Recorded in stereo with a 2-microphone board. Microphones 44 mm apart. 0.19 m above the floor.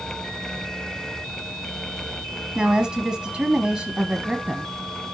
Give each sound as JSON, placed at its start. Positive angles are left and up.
{"t": 2.5, "sound": "a woman speaking", "side_deg": -20, "distance_m": 1.0}